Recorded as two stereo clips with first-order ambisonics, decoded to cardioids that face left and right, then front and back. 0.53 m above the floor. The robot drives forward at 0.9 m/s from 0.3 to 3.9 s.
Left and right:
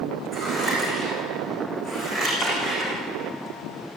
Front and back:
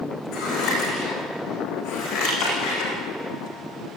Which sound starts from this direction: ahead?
Scissors, at 0.3 s.